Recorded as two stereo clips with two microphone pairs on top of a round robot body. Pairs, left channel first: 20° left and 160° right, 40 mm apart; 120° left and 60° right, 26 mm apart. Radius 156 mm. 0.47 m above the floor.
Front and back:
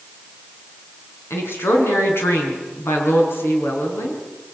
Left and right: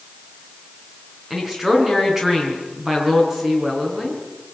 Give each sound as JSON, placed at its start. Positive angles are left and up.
{"t": 1.3, "sound": "a woman speaking", "azimuth_deg": 20, "distance_m": 6.0}